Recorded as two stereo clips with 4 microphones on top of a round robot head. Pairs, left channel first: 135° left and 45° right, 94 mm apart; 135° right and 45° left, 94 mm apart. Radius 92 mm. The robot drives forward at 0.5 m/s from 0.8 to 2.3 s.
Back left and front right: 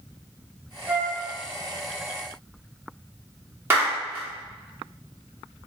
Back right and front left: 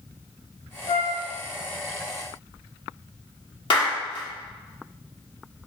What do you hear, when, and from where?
0.9 s a flute: 110° right, 1.0 m; by 1.2 s 120° right, 1.1 m
3.7 s a clap: 110° right, 1.4 m